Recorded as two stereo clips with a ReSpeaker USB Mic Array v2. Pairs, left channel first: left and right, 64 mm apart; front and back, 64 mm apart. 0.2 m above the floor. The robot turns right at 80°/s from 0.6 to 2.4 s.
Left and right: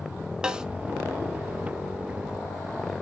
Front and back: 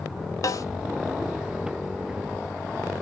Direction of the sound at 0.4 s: 15° right.